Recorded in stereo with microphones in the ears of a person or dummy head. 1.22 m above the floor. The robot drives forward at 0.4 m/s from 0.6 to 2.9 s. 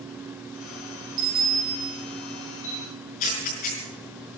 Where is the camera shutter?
40° left (ahead or behind), 5.5 m.